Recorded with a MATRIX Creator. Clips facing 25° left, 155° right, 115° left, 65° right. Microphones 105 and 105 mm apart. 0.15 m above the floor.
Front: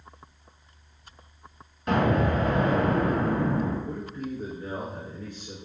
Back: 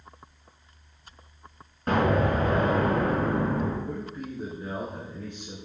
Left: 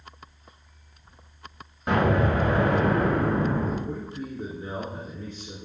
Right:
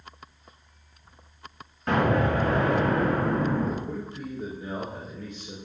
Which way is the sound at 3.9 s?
145° left.